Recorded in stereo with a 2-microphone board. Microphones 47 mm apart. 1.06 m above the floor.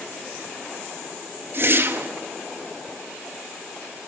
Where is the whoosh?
50° right (ahead or behind), 1.3 m.